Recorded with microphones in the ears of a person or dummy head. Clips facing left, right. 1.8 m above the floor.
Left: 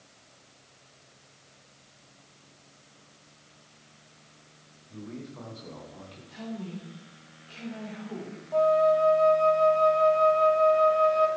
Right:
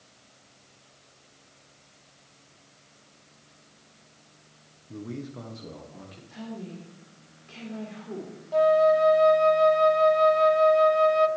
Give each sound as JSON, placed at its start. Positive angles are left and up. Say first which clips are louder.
{"t": 4.9, "sound": "a man speaking", "louder": "right 4 dB", "side_deg": -55, "distance_m": 1.3}
{"t": 6.3, "sound": "a woman speaking", "louder": "left 1 dB", "side_deg": -30, "distance_m": 4.5}
{"t": 8.5, "sound": "a flute", "louder": "right 2 dB", "side_deg": -20, "distance_m": 0.6}